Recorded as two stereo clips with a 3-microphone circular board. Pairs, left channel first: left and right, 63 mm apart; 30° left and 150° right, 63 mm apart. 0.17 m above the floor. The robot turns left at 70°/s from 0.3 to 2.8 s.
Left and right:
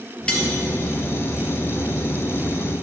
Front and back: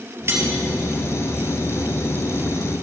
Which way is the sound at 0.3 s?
165° left.